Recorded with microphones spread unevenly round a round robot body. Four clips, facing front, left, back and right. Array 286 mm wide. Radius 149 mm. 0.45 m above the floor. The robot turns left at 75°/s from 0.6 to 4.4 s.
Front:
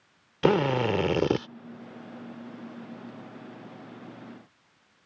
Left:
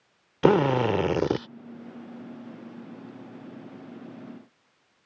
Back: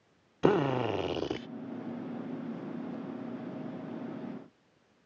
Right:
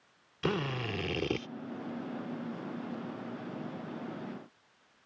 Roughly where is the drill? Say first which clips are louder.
Left 14 dB, front 3 dB; left.